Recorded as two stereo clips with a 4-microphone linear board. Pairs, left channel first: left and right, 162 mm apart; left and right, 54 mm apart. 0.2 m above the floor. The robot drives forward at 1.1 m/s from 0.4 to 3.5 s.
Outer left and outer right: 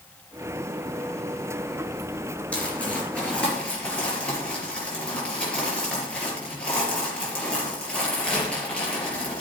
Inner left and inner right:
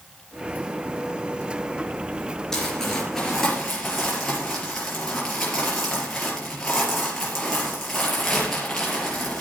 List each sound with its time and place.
2.5 s crumpling: 10° left (ahead or behind), 4 m; by 9.4 s 5° left (ahead or behind), 5 m